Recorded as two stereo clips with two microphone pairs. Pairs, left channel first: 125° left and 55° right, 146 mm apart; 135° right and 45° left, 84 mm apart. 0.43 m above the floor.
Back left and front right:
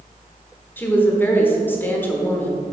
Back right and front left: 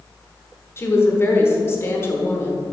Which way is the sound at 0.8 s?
170° right.